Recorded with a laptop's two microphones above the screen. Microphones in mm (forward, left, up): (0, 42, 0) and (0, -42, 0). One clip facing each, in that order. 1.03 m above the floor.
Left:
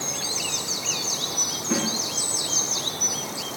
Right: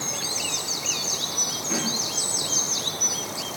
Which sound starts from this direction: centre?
A snare drum, at 1.7 s.